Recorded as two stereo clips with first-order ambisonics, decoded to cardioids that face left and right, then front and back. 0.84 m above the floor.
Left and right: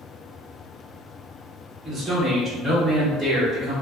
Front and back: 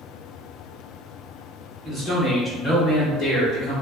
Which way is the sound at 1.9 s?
150° right.